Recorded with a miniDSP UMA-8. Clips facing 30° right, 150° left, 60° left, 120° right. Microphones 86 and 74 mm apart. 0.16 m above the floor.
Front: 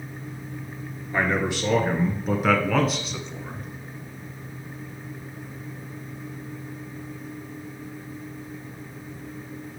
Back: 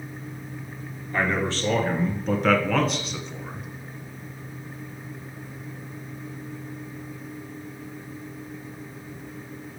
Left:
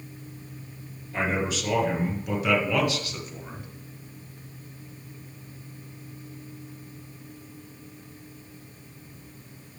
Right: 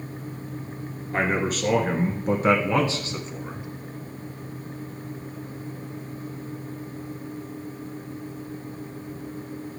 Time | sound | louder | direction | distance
1.1 | a man speaking | front 1 dB, right 3 dB | 100° right | 1.9 m